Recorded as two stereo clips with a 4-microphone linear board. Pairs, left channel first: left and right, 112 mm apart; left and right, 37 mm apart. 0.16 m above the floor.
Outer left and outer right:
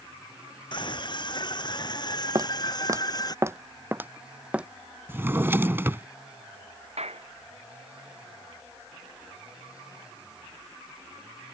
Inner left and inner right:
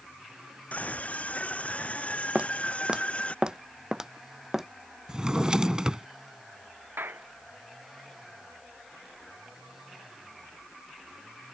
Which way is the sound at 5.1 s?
20° right (ahead or behind).